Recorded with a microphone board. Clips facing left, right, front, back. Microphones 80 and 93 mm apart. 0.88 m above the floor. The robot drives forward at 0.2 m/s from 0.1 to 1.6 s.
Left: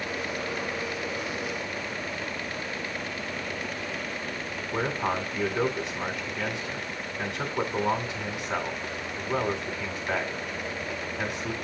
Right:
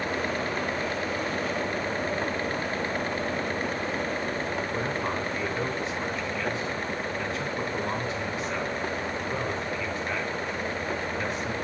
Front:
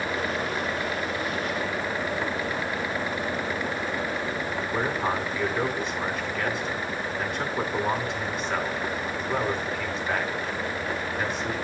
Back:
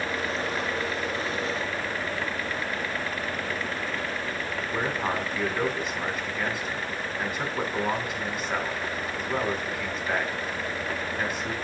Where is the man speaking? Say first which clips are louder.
Left 1 dB, front 1 dB; 95° left, 3.5 m.